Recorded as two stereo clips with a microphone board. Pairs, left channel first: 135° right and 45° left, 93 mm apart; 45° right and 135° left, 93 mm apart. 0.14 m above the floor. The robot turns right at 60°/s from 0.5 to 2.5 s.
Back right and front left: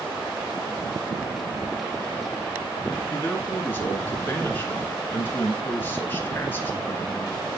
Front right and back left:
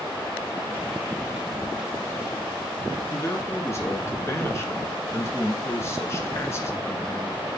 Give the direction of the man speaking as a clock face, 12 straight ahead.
3 o'clock.